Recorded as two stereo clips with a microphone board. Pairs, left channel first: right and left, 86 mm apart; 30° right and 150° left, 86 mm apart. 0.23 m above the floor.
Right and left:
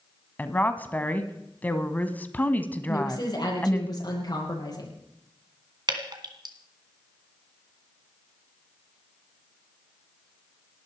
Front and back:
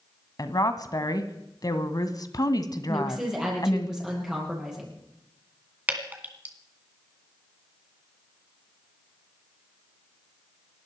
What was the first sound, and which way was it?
A woman speaking, 25° right.